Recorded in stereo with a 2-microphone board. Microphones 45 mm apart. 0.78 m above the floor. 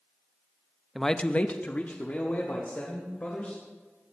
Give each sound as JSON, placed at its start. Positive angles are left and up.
{"t": 0.9, "sound": "a man speaking", "side_deg": 0, "distance_m": 0.6}